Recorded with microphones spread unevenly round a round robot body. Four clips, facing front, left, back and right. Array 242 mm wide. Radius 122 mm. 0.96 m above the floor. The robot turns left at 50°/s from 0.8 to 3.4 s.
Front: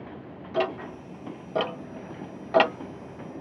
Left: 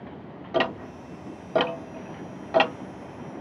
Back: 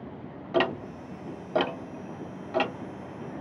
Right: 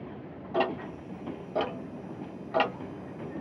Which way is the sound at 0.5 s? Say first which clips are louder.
Left 3 dB, back 1 dB; 120° left.